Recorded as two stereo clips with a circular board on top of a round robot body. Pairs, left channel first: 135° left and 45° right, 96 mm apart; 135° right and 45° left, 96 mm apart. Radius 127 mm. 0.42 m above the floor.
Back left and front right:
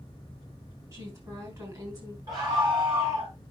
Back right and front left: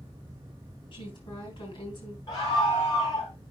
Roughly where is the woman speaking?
Right.